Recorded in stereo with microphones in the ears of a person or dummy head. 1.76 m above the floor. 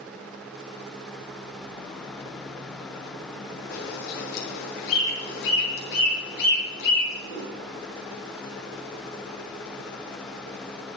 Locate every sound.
3.7 s a bird: 70° left (ahead or behind), 5.5 m